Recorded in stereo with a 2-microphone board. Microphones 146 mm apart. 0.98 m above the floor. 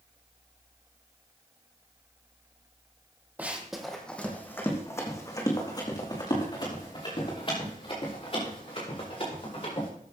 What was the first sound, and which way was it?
Running footsteps, 10° right (ahead or behind).